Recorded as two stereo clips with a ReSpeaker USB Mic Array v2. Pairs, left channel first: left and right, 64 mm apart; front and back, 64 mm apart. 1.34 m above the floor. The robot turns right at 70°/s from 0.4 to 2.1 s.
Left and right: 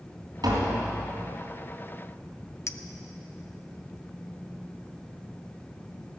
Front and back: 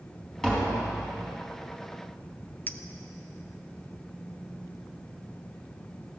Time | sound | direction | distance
0.4 | tapping | 80° right | 4 m
2.7 | a clink | 55° left | 0.6 m